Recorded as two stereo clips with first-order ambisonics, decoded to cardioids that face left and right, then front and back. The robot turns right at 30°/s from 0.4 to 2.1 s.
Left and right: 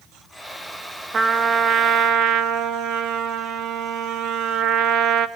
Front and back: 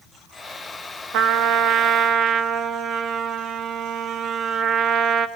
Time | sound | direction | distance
1.1 | a trumpet | 155° right | 1.2 m